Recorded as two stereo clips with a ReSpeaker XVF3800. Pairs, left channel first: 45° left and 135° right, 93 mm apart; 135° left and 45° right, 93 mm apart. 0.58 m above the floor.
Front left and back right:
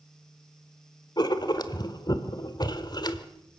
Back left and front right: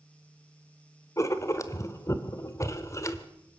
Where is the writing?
80° left, 1.5 m.